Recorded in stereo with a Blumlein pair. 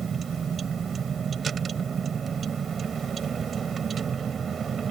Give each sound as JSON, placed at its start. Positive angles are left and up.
{"t": 0.0, "sound": "a vehicle", "azimuth_deg": -20}